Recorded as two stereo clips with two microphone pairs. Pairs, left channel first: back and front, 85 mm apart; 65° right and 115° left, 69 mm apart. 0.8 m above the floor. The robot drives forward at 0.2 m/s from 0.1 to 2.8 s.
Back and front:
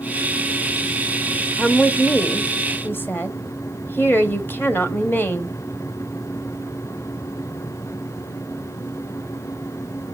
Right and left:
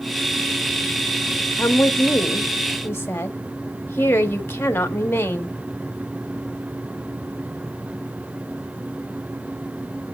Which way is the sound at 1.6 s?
105° right.